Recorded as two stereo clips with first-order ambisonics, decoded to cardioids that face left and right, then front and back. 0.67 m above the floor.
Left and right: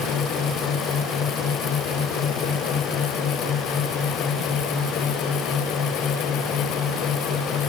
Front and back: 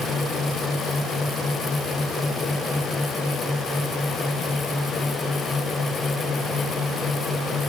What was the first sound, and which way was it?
Only background noise.